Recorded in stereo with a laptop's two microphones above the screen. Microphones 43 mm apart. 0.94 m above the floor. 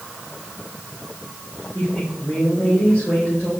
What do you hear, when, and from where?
1.7 s a woman speaking: 30° left (ahead or behind), 3.5 m